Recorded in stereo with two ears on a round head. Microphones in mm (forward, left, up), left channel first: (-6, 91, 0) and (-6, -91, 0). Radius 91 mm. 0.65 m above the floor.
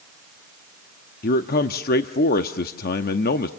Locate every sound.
1.2 s a man speaking: 45° left (ahead or behind), 0.7 m